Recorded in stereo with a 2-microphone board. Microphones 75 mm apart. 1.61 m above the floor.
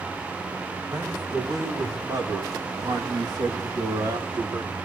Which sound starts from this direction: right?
A man speaking, at 0.9 s.